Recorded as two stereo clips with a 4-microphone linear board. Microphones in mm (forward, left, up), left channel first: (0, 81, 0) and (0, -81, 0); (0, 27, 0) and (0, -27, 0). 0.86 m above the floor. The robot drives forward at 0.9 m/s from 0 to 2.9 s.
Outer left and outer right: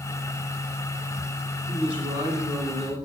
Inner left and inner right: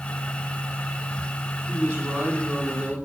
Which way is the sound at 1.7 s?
35° right (ahead or behind).